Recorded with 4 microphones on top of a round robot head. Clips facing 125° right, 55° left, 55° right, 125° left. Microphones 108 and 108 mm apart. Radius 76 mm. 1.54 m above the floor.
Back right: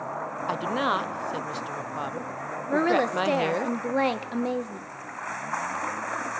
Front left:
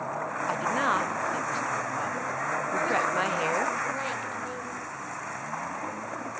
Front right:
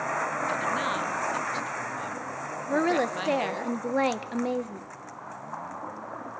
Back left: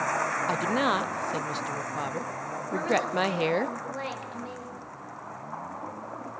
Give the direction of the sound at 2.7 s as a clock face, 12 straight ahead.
3 o'clock.